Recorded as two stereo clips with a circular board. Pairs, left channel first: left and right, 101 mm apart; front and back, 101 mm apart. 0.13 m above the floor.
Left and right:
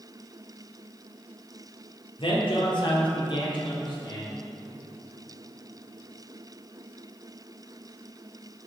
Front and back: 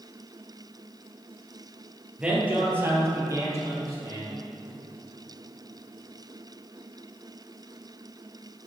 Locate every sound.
2.2 s a man speaking: 100° left, 2.5 m; by 4.3 s 135° left, 4.5 m